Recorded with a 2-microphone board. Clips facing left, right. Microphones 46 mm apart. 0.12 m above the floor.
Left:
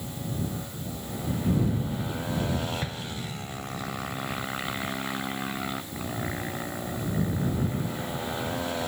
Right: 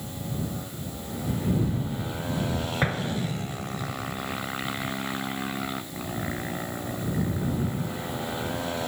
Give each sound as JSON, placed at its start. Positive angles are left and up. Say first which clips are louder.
{"t": 2.8, "sound": "an explosion", "louder": "right 7 dB", "side_deg": -50}